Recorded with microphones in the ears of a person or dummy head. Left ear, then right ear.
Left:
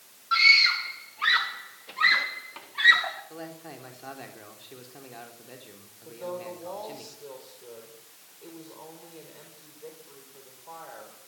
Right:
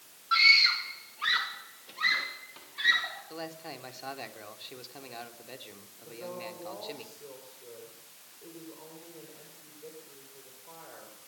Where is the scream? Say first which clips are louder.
Left 2 dB; 5° right (ahead or behind), 2 m; by 3.2 s 40° left (ahead or behind), 4.5 m.